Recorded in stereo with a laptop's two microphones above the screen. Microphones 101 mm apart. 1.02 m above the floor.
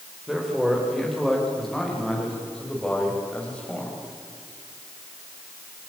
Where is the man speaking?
5° right (ahead or behind), 4 m; by 4.0 s 10° left (ahead or behind), 5.5 m.